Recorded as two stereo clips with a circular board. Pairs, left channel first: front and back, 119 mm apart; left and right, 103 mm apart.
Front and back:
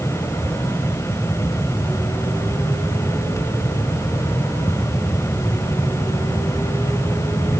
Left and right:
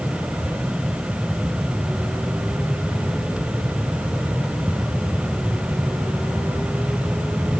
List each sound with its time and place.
Only background noise.